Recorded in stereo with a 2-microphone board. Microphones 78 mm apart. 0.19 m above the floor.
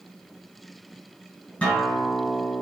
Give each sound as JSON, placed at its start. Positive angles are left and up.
{"t": 1.6, "sound": "a guitar", "side_deg": 15, "distance_m": 1.7}